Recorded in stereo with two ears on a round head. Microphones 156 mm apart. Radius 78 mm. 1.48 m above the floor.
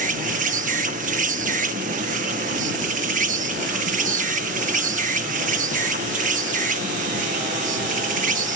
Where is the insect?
45° right (ahead or behind).